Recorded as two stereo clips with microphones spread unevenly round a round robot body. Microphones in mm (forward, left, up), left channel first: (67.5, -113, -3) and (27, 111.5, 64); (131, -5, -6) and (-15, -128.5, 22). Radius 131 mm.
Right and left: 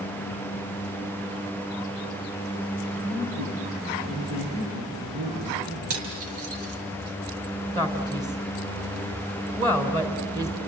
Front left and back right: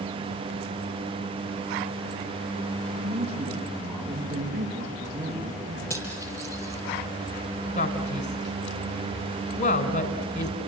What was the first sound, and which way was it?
A man speaking, 165° left.